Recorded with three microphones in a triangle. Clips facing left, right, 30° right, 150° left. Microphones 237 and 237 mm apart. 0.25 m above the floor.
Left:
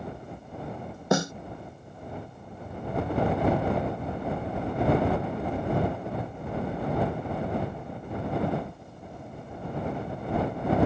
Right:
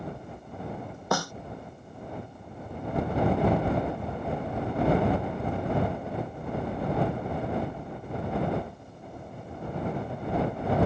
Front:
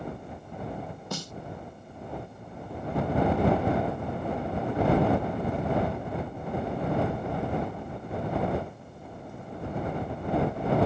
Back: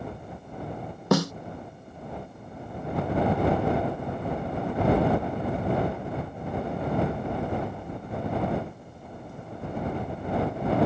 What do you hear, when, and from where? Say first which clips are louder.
1.1 s a snare drum: left 5 dB, back 17 dB; 155° left